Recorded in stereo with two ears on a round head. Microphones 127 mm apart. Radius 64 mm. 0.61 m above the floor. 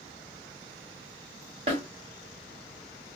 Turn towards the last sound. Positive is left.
turn(degrees=-45)  # may be behind; listen again after turning